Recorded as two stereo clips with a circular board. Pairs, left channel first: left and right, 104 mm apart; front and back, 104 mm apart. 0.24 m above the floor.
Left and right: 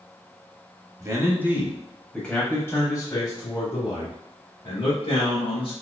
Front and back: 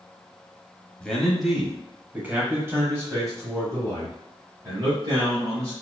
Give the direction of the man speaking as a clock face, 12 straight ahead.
2 o'clock.